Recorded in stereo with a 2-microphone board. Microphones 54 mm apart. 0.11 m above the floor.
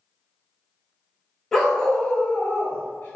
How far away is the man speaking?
No man speaking in this recording.